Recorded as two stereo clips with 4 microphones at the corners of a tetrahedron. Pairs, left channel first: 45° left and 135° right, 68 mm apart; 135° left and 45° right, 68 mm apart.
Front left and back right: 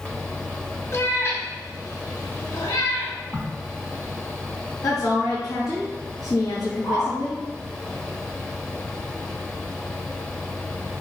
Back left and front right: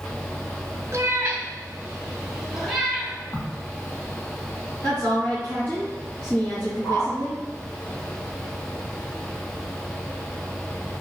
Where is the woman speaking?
70° left, 3.5 m.